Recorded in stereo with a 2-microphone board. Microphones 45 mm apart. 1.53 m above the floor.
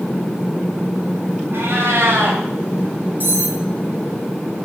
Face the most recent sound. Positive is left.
turn(degrees=-45)  # may be behind; listen again after turning